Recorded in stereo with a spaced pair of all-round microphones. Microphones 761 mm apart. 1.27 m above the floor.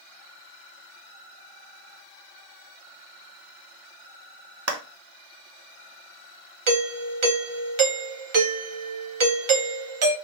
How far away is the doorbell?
About 0.8 m.